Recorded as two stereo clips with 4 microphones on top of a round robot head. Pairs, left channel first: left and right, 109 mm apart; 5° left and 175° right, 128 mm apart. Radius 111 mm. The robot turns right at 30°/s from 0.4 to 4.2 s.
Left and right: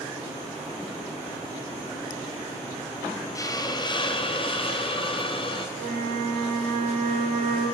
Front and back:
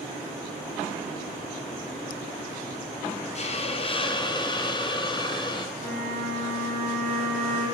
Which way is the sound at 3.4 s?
30° left.